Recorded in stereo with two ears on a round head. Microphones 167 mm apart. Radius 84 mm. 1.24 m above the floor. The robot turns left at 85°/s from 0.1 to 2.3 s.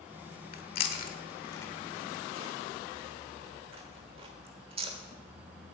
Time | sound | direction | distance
0.5 | chewing | 50° left (ahead or behind) | 1.3 m